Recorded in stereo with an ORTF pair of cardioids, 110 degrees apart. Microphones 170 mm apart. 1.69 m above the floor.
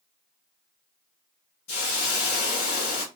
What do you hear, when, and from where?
1.7 s a hiss: 65° left, 1.2 m